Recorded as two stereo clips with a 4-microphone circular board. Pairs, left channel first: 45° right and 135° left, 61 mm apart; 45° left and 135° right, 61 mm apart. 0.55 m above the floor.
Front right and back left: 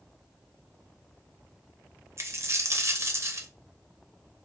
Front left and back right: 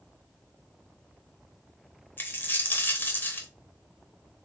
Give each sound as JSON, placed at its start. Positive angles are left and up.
{"t": 2.2, "sound": "a dropped coin", "azimuth_deg": 100, "distance_m": 1.0}